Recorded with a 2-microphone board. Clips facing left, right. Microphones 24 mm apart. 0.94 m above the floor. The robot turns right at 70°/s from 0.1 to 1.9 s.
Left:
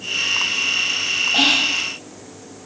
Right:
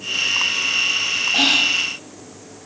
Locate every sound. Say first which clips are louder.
1.3 s whispering: right 1 dB; 5° right, 5 m; by 1.8 s 25° left, 5 m